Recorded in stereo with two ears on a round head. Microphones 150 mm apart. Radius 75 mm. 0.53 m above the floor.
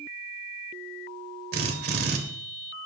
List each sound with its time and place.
1.5 s a drill: 65° right (ahead or behind), 2.5 m